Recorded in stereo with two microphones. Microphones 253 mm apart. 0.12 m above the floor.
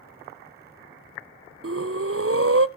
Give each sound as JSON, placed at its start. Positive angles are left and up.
{"t": 1.6, "sound": "breathing", "side_deg": -60, "distance_m": 0.5}